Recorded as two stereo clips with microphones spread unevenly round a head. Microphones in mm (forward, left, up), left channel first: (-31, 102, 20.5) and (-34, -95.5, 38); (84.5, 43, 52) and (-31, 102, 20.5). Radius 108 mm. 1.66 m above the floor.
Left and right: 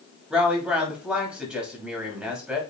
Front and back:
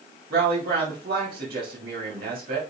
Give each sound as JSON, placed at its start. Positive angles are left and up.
{"t": 0.3, "sound": "a woman speaking", "azimuth_deg": -175, "distance_m": 3.0}